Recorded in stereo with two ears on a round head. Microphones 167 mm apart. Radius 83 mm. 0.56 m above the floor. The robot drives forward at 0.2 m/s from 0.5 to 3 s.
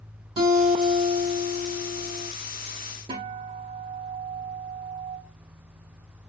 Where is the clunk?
I don't hear a clunk.